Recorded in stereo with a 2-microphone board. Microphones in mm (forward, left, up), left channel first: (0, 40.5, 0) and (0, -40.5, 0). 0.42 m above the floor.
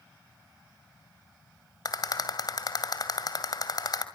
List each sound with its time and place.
1.9 s a rattle: 55° left (ahead or behind), 2 m